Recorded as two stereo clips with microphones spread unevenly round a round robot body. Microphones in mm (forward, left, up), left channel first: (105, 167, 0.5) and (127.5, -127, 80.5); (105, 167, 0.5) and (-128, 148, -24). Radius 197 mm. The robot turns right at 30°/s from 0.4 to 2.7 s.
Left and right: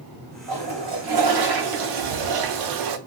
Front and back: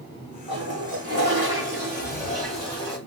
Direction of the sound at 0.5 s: 130° right.